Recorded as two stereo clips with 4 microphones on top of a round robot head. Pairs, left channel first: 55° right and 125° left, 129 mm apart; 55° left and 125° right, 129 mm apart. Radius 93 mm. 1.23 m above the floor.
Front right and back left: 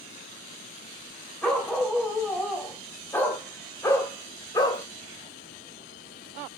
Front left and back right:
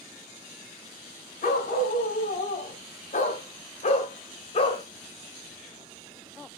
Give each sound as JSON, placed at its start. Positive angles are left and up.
{"t": 1.4, "sound": "a dog barking", "azimuth_deg": 30, "distance_m": 4.5}